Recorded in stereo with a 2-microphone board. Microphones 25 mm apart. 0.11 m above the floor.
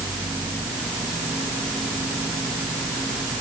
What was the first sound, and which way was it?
Only background noise.